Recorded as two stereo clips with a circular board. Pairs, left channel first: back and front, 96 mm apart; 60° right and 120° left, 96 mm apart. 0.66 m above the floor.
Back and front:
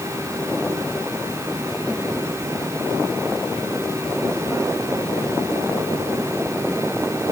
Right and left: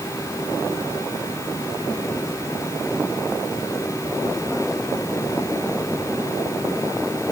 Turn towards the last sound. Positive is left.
No sound to turn to.